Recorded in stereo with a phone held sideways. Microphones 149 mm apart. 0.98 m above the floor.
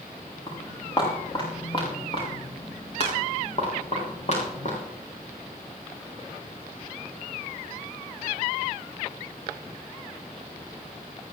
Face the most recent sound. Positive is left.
turn(degrees=50)  # may be behind; listen again after turning